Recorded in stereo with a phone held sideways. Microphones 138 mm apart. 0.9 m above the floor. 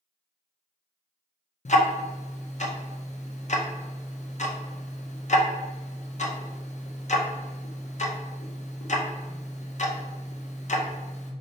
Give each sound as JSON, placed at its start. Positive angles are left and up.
{"t": 1.6, "sound": "ticking", "side_deg": 60, "distance_m": 0.6}